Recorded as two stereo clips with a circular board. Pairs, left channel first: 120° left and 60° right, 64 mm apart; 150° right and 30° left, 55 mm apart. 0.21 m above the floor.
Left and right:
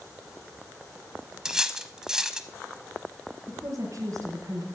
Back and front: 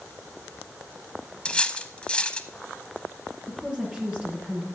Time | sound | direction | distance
1.4 | cutlery clinking | 120° right | 0.6 m
3.5 | a woman speaking | 35° right | 3 m